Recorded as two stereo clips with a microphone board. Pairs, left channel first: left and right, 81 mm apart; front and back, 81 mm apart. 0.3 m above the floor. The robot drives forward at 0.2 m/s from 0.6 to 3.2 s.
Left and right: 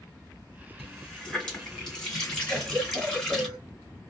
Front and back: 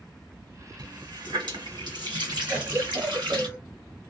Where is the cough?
140° right, 1.0 m; by 3.6 s 150° right, 1.0 m.